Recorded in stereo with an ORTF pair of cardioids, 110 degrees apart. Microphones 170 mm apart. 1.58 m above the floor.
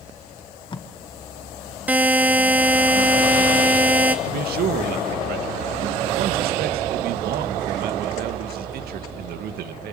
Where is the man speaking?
65° right, 2.5 m.